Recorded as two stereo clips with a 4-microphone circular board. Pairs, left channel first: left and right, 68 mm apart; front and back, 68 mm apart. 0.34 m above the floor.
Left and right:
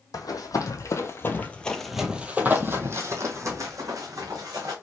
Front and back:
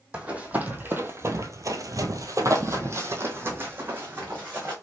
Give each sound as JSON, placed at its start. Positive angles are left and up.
{"t": 0.1, "sound": "running footsteps", "azimuth_deg": 110, "distance_m": 1.0}